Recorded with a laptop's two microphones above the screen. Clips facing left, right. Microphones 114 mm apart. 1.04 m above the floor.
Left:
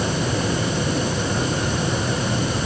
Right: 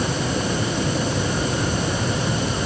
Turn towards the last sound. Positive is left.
No sound to turn to.